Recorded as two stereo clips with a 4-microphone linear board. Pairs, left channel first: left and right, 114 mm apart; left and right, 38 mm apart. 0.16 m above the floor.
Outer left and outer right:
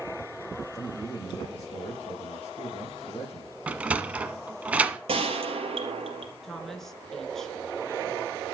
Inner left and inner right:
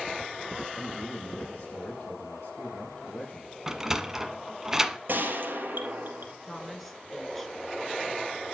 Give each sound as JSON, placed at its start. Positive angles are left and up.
{"t": 0.7, "sound": "a man speaking", "side_deg": 35, "distance_m": 5.0}
{"t": 3.7, "sound": "a sliding door", "side_deg": -10, "distance_m": 1.1}
{"t": 5.1, "sound": "a gunshot", "side_deg": -55, "distance_m": 3.5}
{"t": 6.4, "sound": "a woman speaking", "side_deg": 5, "distance_m": 2.5}